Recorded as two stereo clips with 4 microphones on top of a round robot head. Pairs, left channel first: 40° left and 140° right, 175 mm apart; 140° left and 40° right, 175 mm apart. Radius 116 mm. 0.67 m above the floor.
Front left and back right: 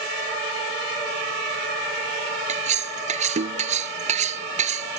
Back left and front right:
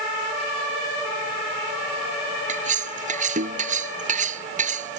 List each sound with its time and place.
2.5 s cutlery clinking: 90° right